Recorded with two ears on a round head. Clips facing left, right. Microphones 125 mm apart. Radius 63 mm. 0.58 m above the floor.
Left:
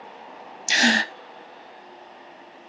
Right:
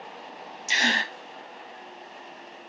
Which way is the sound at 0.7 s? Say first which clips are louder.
Left 6 dB; 55° left (ahead or behind).